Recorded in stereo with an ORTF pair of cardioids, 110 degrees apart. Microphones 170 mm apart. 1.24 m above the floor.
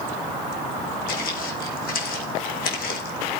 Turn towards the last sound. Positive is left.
turn(degrees=65)